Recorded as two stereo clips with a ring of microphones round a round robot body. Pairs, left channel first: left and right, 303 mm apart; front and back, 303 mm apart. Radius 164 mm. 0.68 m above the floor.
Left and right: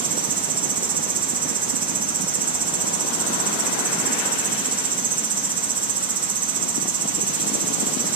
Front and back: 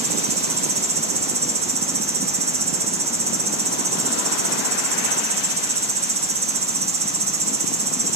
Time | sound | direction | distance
0.0 | an insect | 145° right | 1.5 m